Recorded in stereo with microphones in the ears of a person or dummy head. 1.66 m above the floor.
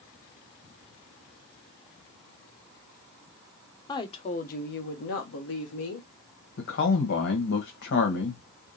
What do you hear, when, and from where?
3.9 s a woman speaking: 25° left (ahead or behind), 1.0 m; by 6.1 s 70° left (ahead or behind), 1.5 m
6.6 s a man speaking: 60° left (ahead or behind), 1.5 m